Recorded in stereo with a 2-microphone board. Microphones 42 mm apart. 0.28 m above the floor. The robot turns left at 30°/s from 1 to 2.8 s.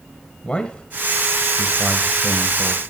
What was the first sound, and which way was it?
A man speaking, 25° left (ahead or behind).